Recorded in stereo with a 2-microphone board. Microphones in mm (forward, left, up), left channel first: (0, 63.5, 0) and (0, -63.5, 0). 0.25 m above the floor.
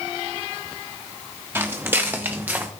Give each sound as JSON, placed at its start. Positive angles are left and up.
{"t": 1.6, "sound": "footsteps", "side_deg": -20, "distance_m": 2.5}